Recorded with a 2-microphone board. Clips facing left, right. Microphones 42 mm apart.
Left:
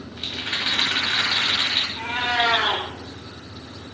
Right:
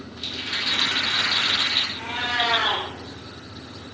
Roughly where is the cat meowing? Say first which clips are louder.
Left 3 dB; left.